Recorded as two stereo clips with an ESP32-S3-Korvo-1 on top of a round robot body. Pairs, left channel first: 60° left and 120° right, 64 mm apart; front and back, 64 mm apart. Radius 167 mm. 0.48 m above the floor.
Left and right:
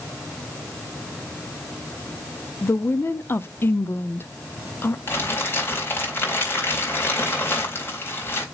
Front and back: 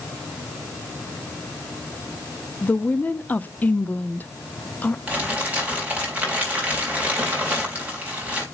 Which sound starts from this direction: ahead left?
A woman speaking, at 2.6 s.